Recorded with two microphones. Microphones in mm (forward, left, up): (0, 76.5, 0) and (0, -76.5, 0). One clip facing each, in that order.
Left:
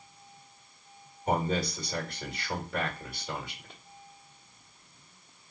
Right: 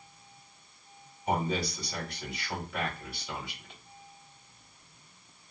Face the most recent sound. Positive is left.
turn(degrees=45)  # may be behind; listen again after turning